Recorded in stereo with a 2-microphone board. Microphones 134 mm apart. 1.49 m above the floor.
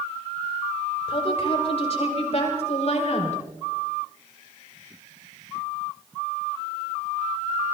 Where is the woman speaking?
45° left (ahead or behind), 6.5 m; by 3.4 s 60° left (ahead or behind), 6 m.